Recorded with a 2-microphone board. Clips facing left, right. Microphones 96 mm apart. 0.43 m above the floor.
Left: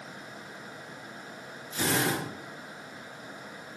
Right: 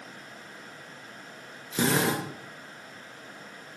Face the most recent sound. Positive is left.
turn(degrees=-70)  # may be behind; listen again after turning